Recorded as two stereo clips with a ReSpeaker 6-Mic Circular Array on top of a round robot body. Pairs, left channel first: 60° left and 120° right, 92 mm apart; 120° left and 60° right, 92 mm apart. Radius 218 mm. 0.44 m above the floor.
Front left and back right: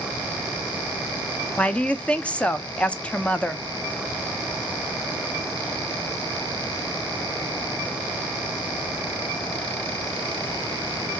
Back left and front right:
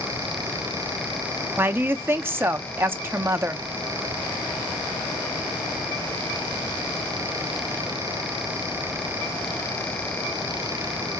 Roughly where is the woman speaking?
Ahead.